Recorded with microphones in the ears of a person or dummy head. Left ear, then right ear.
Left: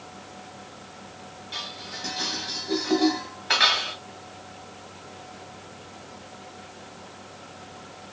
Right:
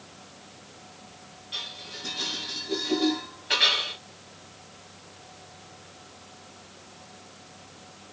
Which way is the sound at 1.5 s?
30° left (ahead or behind).